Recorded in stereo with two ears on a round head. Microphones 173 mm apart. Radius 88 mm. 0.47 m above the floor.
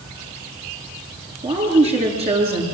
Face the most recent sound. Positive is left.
turn(degrees=-35)  # may be behind; listen again after turning